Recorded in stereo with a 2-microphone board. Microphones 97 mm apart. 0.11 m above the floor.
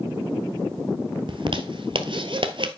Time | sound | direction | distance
1.3 | a zipper | 55° right (ahead or behind) | 0.8 m